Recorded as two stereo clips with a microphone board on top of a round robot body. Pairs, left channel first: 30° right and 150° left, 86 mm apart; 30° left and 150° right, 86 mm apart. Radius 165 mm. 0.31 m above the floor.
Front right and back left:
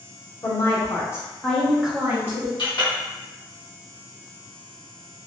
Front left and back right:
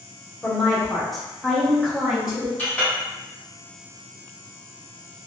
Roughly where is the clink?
Ahead right.